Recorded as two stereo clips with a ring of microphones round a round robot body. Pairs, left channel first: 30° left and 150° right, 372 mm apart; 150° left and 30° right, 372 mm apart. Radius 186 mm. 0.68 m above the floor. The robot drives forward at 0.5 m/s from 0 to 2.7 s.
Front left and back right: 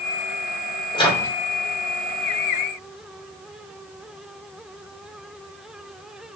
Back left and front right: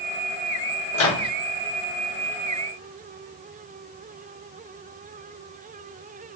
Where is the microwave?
105° left, 1.6 m; by 1.3 s 115° left, 1.7 m.